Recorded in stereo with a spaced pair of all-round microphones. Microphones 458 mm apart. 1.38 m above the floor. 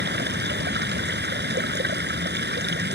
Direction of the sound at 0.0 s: 20° right (ahead or behind).